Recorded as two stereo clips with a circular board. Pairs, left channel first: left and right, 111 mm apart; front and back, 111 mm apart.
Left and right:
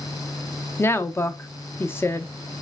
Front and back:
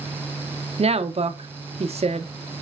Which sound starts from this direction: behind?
A woman speaking, at 0.8 s.